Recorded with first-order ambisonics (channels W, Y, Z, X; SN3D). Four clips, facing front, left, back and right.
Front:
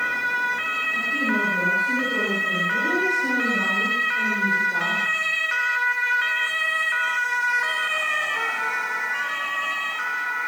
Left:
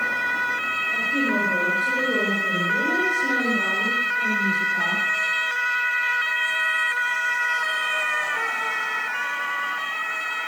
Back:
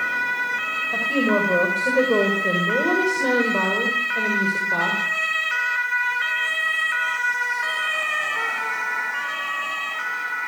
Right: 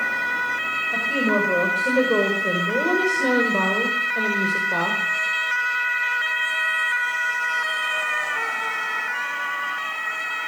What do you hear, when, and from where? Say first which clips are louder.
0.9 s a woman speaking: right 2 dB, back 5 dB; 150° right, 7 m; by 5.0 s 120° right, 6 m